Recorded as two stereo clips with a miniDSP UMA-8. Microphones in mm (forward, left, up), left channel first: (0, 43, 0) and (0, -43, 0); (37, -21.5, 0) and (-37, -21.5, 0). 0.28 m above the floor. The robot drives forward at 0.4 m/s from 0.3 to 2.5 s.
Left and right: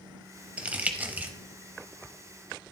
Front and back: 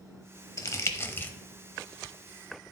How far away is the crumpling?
About 0.9 m.